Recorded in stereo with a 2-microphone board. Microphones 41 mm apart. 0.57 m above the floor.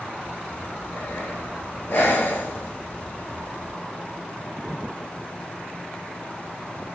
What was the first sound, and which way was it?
Breathing, 50° left (ahead or behind).